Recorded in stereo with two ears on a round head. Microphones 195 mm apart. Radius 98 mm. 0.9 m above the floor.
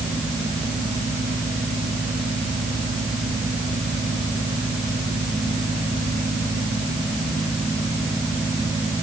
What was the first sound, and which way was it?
Only background noise.